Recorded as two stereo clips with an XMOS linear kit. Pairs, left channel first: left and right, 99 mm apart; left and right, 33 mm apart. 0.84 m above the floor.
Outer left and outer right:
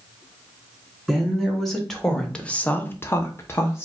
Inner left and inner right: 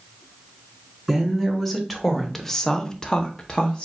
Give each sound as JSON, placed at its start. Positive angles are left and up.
{"t": 1.1, "sound": "a woman speaking", "side_deg": 0, "distance_m": 1.8}